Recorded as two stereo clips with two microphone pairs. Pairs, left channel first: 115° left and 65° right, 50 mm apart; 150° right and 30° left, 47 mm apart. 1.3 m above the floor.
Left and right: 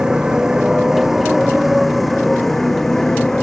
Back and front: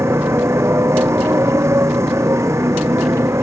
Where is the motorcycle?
10° left; by 3.4 s 35° left.